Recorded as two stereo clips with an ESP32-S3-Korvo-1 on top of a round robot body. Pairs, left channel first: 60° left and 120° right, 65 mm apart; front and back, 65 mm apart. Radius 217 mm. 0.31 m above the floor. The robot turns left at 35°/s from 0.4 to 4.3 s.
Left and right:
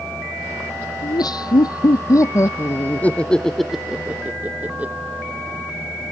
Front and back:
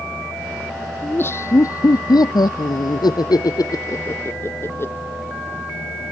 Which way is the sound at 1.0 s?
60° left.